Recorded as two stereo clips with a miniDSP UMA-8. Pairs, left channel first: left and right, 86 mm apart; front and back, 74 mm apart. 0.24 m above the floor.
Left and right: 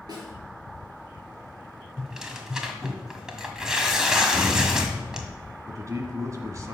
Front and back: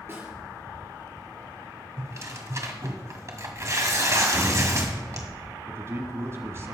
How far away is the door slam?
About 3 m.